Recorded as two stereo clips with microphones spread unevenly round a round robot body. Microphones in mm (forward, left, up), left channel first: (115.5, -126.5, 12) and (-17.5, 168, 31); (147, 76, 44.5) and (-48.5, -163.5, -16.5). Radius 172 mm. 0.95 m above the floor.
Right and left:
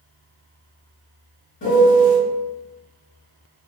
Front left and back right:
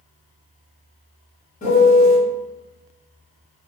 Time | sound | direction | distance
1.6 | a piano | 20° right | 1.7 m